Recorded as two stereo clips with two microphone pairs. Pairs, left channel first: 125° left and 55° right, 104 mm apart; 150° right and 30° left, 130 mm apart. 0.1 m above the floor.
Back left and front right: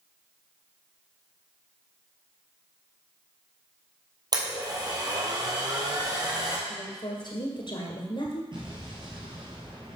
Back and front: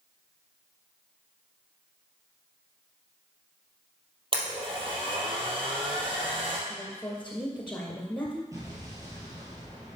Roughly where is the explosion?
Ahead right.